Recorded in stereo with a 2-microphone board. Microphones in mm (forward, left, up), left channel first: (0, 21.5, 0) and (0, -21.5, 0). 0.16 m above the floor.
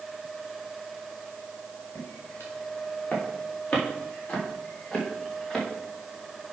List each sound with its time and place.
1.9 s footsteps: 50° left (ahead or behind), 4 m; by 5.7 s 10° left (ahead or behind), 4 m